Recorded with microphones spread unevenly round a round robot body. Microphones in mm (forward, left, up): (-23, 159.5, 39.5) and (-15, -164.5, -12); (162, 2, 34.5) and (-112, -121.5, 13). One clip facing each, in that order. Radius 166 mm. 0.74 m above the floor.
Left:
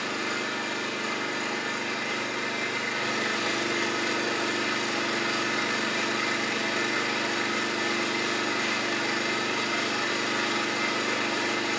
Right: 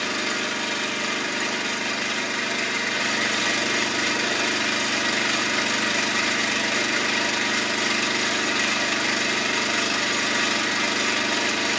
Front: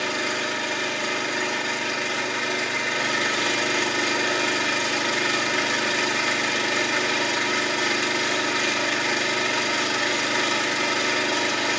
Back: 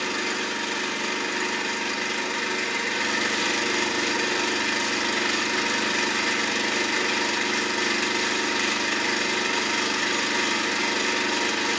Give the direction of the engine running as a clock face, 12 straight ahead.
3 o'clock.